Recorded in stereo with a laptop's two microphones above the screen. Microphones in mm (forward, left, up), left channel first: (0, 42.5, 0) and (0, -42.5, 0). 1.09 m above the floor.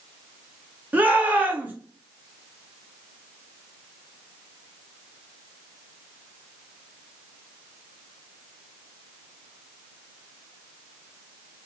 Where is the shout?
20° right (ahead or behind), 1.0 m.